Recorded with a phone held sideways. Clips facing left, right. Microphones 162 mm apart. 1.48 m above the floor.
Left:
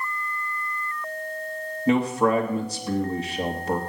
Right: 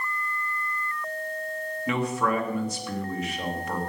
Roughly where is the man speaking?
Left.